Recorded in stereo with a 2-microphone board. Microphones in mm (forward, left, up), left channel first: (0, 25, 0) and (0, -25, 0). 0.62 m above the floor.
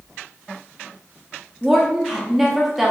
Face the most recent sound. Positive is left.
turn(degrees=-5)  # may be behind; listen again after turning